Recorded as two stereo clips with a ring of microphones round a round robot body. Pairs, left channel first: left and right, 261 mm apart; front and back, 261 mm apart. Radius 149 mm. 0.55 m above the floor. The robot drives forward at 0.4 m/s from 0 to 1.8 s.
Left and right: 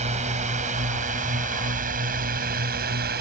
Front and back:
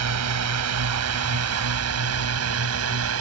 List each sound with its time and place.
0.0 s a drone: 160° right; by 3.2 s 150° right